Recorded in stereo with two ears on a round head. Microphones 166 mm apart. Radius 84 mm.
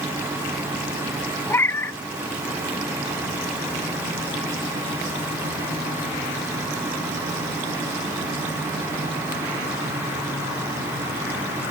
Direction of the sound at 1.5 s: 15° left (ahead or behind).